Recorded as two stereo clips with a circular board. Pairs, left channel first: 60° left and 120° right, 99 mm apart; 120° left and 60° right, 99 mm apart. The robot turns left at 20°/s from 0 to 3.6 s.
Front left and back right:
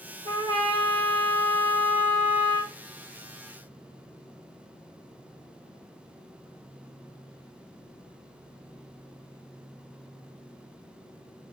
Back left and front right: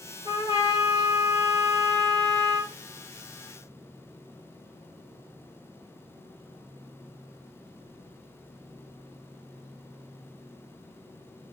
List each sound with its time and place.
0.2 s a trumpet: 110° right, 4 m; by 2.7 s 155° right, 4 m